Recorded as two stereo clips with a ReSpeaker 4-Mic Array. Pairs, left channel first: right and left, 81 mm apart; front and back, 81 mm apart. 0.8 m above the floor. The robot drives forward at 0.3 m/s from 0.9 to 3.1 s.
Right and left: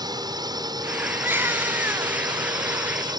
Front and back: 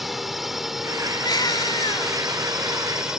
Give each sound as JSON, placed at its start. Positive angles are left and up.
{"t": 0.0, "sound": "a drone", "azimuth_deg": 90}
{"t": 1.2, "sound": "a baby crying", "azimuth_deg": 30}